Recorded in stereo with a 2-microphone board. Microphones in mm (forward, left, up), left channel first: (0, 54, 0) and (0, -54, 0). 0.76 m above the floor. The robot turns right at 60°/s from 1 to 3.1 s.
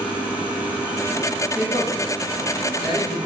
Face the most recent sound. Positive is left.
turn(degrees=50)  # may be behind; listen again after turning